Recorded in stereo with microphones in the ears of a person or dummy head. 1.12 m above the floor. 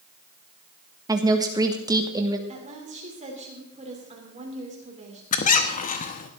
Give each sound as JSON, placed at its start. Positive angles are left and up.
{"t": 1.1, "sound": "a woman speaking", "side_deg": -25, "distance_m": 1.4}
{"t": 2.5, "sound": "a woman speaking", "side_deg": -40, "distance_m": 3.0}
{"t": 5.3, "sound": "a squeak", "side_deg": 35, "distance_m": 1.0}